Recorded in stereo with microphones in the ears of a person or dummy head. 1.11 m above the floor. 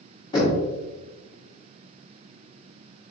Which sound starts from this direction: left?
Knocking, at 0.3 s.